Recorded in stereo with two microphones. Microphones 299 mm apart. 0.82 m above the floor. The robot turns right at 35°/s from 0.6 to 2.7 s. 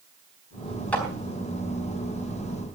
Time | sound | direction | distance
0.9 | a clap | 5° left (ahead or behind) | 3.5 m